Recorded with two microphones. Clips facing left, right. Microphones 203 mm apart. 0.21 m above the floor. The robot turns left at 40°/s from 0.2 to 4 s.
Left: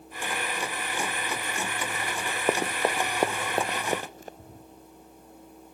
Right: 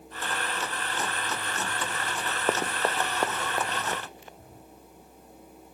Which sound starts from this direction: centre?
Running footsteps, at 2.5 s.